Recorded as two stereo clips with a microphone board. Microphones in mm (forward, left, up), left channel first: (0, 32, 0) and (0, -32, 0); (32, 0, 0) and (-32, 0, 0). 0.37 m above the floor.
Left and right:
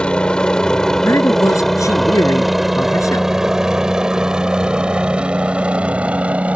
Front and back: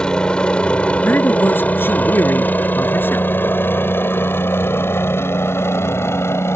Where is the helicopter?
50° left; by 6.6 s 30° right.